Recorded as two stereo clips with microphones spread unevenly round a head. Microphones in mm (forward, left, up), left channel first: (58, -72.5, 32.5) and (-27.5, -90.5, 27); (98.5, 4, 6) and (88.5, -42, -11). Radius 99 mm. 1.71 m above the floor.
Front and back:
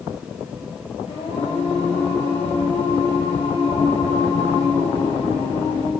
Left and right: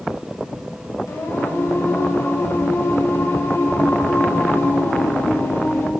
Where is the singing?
60° left, 2 m.